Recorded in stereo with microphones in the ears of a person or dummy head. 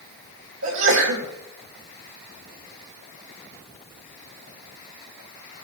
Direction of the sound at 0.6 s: 80° right.